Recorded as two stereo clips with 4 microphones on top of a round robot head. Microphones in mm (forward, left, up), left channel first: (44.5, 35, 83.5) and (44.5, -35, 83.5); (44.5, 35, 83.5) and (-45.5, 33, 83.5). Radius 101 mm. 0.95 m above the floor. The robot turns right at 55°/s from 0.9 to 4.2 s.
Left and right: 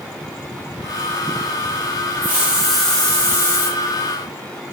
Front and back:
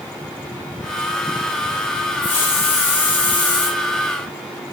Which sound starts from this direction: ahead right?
A hiss, at 2.2 s.